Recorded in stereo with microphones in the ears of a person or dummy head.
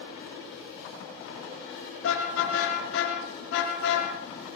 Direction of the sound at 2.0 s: 85° left.